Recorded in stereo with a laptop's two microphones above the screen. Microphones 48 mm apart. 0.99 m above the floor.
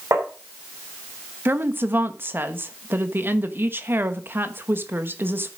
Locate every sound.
0.1 s tapping: 80° right, 3 m
1.4 s a woman speaking: 50° right (ahead or behind), 1.0 m